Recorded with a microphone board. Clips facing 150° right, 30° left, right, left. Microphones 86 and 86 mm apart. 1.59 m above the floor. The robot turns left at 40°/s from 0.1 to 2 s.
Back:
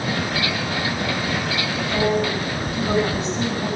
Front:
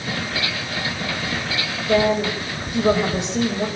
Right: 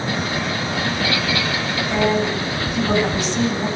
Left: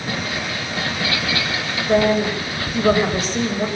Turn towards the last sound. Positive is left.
turn(degrees=40)